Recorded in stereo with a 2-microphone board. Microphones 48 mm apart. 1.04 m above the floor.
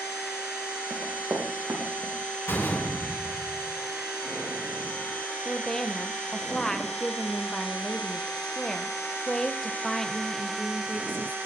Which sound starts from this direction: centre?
A woman speaking, at 5.5 s.